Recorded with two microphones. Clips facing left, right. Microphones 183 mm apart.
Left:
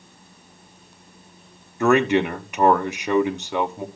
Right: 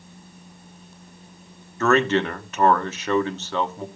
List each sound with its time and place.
1.8 s a man speaking: 15° left (ahead or behind), 1.0 m